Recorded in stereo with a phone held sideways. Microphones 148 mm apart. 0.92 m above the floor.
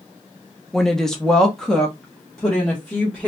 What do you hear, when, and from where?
0.7 s a woman speaking: 5° left (ahead or behind), 0.8 m